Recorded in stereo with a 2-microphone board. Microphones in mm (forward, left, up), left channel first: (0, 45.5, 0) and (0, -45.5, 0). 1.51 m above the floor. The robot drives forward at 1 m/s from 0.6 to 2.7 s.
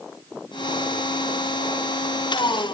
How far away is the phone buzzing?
No phone buzzing in this recording.